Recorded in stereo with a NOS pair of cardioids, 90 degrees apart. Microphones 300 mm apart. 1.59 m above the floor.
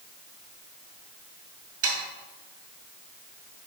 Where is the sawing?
45° right, 2.5 m.